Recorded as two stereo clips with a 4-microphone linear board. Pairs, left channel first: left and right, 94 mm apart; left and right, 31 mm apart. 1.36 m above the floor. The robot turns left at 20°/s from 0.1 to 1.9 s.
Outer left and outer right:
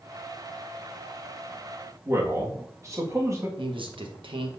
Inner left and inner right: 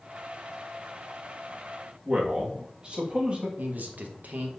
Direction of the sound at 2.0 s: 35° right (ahead or behind).